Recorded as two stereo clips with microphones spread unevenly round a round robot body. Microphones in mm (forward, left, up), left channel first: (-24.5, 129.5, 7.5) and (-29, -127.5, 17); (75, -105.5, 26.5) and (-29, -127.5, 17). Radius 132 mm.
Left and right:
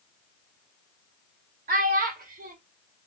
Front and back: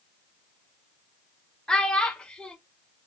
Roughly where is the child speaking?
Right.